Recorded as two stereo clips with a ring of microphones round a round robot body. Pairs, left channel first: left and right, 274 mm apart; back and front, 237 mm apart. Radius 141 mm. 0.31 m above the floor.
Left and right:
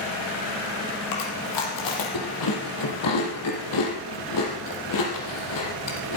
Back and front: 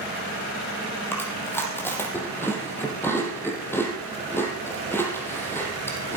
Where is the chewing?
100° left, 4 m.